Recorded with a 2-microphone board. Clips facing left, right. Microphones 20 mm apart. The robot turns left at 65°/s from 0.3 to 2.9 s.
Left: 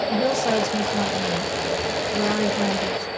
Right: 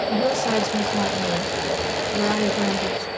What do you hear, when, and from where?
0.1 s a woman speaking: 15° left, 1.3 m; by 3.1 s 155° right, 1.3 m